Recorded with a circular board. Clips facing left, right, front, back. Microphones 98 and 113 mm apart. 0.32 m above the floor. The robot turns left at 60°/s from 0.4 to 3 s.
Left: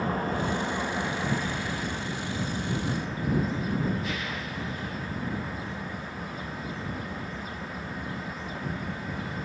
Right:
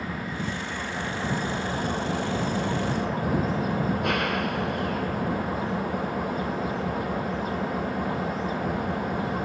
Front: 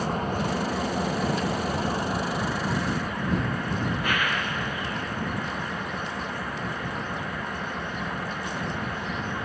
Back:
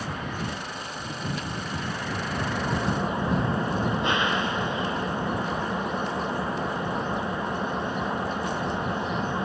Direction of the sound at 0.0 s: 45° left.